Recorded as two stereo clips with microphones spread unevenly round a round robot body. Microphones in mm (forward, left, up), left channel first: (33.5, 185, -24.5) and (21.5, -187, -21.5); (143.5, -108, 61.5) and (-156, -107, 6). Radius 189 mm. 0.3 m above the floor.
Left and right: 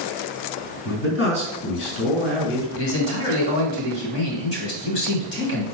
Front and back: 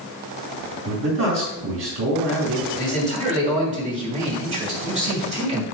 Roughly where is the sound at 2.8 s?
Behind left.